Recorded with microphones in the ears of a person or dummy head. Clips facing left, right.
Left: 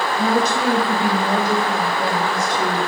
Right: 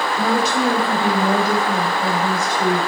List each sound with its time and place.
0.2 s a woman speaking: 65° right (ahead or behind), 1.0 m; by 2.8 s 25° left (ahead or behind), 1.4 m